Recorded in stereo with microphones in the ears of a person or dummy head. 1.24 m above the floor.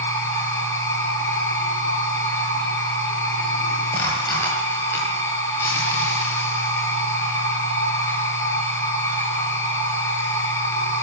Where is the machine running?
10° left (ahead or behind), 9 m.